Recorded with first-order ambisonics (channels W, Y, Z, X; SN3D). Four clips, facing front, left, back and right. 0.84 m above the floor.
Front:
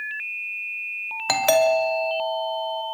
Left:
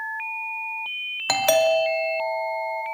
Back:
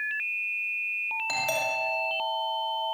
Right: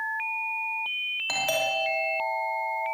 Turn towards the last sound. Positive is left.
turn(degrees=40)